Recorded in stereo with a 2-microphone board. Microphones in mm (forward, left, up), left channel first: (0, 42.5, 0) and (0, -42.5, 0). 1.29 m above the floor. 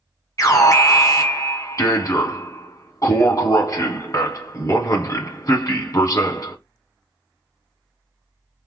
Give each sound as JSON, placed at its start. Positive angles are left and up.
{"t": 0.4, "sound": "an alarm", "side_deg": 40, "distance_m": 1.5}